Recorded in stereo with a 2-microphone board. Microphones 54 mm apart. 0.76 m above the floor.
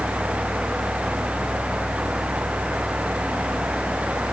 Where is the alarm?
I don't hear an alarm.